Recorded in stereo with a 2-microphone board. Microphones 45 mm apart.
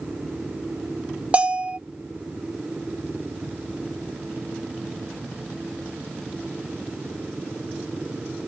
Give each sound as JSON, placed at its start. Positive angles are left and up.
{"t": 1.3, "sound": "a bell", "side_deg": -25}